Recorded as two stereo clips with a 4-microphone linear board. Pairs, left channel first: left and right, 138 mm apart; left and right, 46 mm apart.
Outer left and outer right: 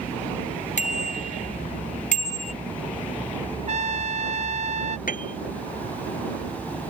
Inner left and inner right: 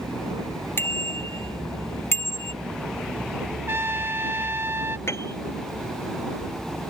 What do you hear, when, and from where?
0.8 s a bicycle bell: 60° left (ahead or behind); by 2.5 s 70° left (ahead or behind)
3.7 s a trumpet: 65° right (ahead or behind)
5.1 s a piano: 80° left